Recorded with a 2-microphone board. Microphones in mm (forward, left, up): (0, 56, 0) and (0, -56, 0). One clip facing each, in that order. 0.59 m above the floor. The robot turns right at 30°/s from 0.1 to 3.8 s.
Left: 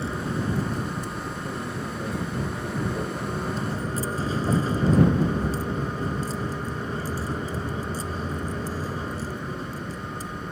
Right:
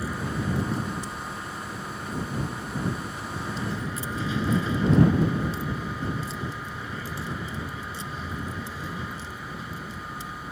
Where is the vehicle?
30° left; by 10.5 s 140° left.